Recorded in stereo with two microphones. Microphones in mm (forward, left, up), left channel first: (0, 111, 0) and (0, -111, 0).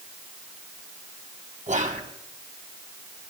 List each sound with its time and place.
1.7 s whispering: 35° right (ahead or behind), 2.5 m